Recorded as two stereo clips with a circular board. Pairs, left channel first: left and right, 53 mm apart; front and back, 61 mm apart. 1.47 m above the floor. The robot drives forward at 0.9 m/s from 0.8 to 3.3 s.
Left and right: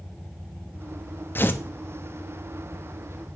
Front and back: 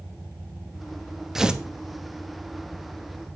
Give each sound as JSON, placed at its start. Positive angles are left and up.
{"t": 1.4, "sound": "tearing paper", "azimuth_deg": 95, "distance_m": 1.0}